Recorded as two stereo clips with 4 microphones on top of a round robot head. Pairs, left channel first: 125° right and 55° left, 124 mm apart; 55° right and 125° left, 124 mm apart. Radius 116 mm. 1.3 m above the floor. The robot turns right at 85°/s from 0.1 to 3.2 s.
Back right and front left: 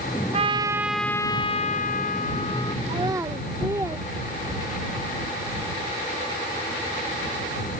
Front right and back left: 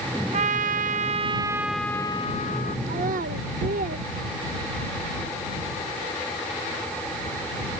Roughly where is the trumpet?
Left.